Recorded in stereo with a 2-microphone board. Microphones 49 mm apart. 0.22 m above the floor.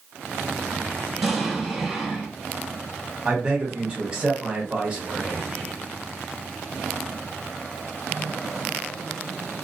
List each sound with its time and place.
1.2 s an explosion: 10° right (ahead or behind), 1.5 m
3.2 s a man speaking: 15° right (ahead or behind), 1.2 m